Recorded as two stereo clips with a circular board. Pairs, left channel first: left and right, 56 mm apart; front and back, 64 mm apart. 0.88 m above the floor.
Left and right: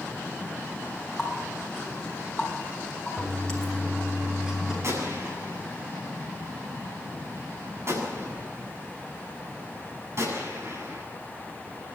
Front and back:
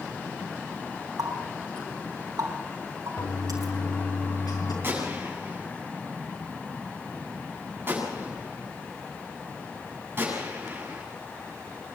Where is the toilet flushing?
10° right, 6 m.